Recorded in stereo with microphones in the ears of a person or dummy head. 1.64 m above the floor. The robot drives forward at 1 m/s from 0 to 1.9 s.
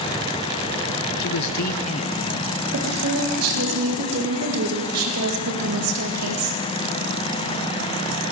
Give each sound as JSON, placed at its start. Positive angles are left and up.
{"t": 1.2, "sound": "a man speaking", "side_deg": 60, "distance_m": 0.6}
{"t": 2.7, "sound": "a woman speaking", "side_deg": -80, "distance_m": 1.9}